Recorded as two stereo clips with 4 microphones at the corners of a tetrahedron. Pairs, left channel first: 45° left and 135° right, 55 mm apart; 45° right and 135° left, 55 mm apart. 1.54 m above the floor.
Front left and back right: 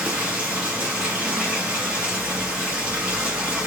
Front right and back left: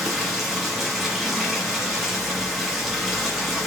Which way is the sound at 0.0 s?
135° right.